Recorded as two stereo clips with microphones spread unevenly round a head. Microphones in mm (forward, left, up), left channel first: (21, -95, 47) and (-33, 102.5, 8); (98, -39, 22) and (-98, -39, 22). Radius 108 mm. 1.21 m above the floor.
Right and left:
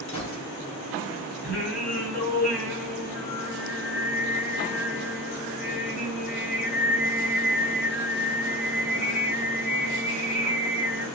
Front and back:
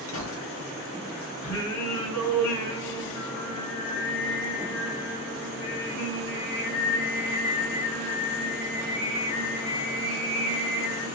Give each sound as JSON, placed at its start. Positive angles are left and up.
{"t": 0.1, "sound": "a gunshot", "azimuth_deg": -10, "distance_m": 1.6}
{"t": 1.4, "sound": "singing", "azimuth_deg": 15, "distance_m": 3.0}